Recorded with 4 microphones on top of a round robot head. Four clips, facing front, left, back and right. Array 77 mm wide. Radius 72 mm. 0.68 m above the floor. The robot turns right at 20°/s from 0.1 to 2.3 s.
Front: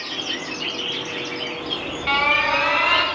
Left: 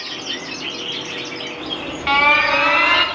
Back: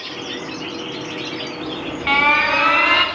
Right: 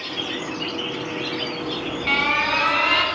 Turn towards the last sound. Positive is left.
turn(degrees=140)